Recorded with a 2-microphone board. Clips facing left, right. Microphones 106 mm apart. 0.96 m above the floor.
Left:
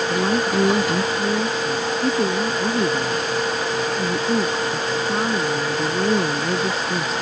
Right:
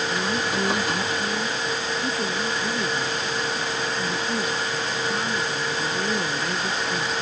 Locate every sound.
0.1 s a woman speaking: 35° left (ahead or behind)